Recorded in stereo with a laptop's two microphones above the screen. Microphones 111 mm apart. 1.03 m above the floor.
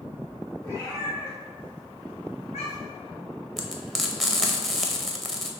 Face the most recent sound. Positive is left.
turn(degrees=0)  # may be behind; listen again after turning